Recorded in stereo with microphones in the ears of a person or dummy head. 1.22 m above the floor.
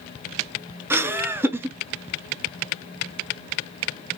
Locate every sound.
0.9 s laughter: 10° right (ahead or behind), 0.5 m